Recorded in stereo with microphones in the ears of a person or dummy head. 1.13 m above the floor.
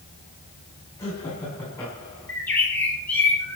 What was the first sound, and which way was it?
Laughter, 20° left (ahead or behind).